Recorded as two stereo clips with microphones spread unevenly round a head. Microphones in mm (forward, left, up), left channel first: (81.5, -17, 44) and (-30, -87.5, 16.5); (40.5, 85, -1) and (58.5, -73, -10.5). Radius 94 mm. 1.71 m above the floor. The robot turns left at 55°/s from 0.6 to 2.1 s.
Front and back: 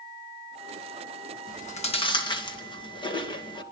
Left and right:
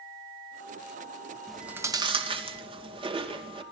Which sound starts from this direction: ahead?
Chewing, at 1.5 s.